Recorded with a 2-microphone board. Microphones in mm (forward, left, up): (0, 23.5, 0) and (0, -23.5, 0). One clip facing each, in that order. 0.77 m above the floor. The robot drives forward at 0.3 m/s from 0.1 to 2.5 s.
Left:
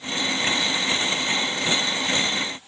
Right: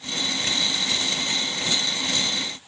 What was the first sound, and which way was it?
Only background noise.